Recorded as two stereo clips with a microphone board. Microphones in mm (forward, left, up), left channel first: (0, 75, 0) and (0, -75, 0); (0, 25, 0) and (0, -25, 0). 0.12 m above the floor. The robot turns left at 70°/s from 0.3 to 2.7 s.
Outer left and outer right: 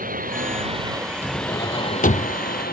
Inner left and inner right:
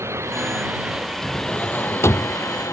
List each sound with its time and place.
0.0 s a drone: 65° right (ahead or behind); by 2.7 s 80° left
1.2 s a drawer: 165° left; by 2.4 s 85° left